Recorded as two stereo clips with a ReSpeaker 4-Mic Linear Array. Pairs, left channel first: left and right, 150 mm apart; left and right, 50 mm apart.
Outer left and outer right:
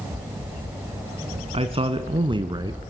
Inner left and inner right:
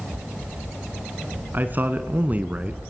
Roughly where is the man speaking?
Right.